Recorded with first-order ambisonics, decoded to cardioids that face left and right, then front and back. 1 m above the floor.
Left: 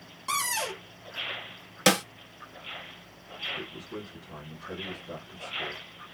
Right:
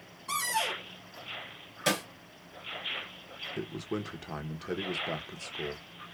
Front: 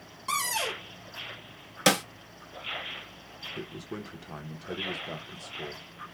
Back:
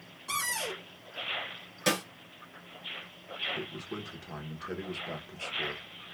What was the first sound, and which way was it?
A cupboard door, 50° left.